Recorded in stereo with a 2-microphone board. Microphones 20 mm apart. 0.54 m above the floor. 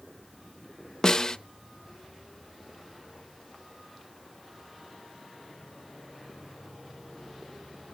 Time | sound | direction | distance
1.0 | a snare drum | 25° left (ahead or behind) | 0.7 m